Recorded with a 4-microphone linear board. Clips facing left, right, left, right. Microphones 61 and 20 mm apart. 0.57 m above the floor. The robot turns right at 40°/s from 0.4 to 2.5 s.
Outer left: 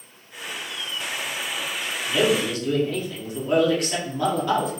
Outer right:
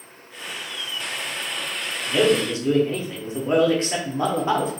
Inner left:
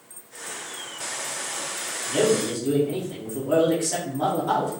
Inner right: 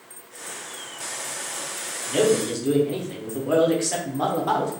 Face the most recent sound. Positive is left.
turn(degrees=-30)  # may be behind; listen again after turning